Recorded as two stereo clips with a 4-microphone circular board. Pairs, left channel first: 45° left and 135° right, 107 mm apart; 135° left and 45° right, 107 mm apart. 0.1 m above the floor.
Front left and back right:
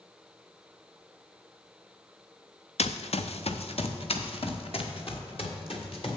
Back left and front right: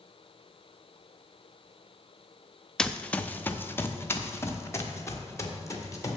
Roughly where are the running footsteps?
Ahead left.